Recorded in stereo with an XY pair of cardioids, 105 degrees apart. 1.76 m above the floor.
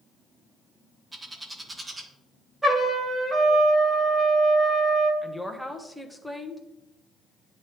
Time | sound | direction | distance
1.1 | a bird | 25° right | 1.3 m
2.6 | a trumpet | 15° right | 2.5 m
5.2 | a woman speaking | straight ahead | 1.1 m